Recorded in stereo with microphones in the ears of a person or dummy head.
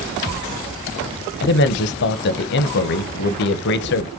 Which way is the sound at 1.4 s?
60° left (ahead or behind).